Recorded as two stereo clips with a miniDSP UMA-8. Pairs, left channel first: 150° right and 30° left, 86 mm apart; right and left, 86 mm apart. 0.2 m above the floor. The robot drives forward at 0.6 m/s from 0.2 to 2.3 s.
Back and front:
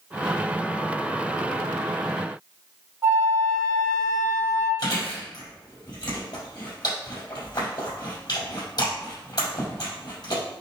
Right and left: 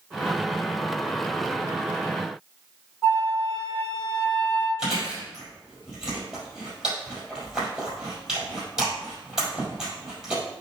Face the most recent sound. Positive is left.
turn(degrees=170)